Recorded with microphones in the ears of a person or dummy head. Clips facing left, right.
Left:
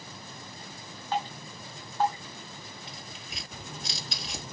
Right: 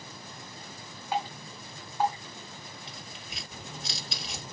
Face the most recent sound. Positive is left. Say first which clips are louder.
# left 1 dB
turn(degrees=0)  # may be behind; listen again after turning